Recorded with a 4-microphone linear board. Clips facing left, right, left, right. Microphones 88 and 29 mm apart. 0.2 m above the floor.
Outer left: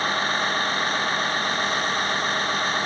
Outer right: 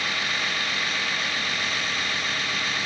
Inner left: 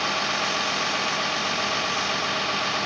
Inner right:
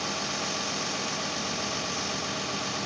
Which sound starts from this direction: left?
A vehicle, at 0.0 s.